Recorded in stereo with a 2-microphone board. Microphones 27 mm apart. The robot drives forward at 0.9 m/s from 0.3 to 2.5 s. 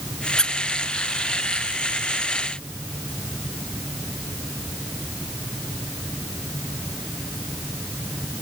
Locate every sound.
0.4 s a squeak: 25° left (ahead or behind), 0.8 m